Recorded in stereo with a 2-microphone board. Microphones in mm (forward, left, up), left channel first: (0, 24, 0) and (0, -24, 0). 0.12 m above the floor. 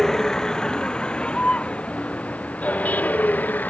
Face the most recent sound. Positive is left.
turn(degrees=35)  # may be behind; listen again after turning